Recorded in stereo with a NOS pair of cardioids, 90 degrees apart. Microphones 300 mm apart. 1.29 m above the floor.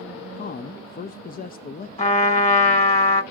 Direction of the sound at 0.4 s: 30° left.